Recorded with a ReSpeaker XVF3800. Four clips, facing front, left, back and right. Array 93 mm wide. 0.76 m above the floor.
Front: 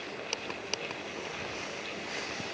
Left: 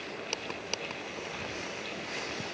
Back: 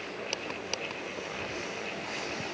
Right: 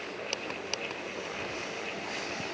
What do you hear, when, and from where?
Only background noise.